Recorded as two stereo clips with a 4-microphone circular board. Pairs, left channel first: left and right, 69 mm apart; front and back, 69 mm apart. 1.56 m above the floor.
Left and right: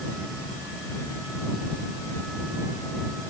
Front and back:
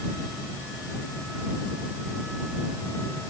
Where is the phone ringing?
No phone ringing in this recording.